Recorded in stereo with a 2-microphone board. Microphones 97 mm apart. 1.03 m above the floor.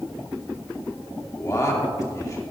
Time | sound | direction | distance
1.4 | a man speaking | 35° left (ahead or behind) | 2 m